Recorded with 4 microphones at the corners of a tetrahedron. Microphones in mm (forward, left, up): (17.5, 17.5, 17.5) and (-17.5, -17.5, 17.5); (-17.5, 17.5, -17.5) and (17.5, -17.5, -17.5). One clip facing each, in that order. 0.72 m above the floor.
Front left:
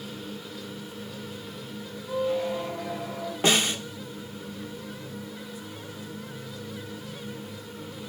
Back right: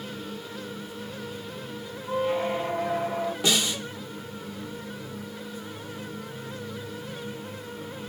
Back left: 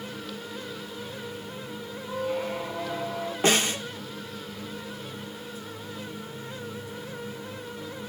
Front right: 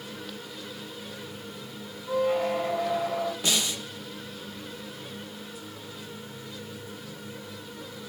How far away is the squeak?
About 1.5 m.